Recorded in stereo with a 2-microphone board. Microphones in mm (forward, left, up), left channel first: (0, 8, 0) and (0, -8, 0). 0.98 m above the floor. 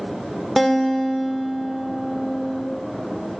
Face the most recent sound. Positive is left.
turn(degrees=0)  # may be behind; listen again after turning